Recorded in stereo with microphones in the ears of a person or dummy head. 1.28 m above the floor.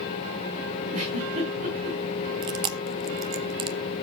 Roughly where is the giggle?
Right.